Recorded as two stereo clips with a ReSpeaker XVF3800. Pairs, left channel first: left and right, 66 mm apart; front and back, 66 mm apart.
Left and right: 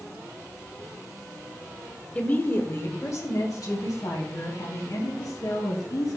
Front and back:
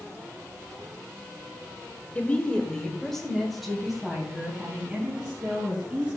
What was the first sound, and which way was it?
A woman speaking, 40° left.